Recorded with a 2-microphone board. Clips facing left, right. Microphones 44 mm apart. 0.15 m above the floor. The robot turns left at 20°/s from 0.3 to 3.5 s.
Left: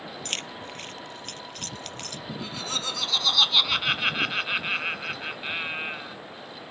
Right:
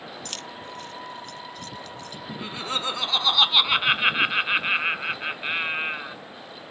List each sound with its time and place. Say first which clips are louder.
0.2 s keys jangling: left 2 dB; 45° left (ahead or behind); by 2.2 s 70° left (ahead or behind)
2.3 s laughter: right 3 dB; 25° right (ahead or behind)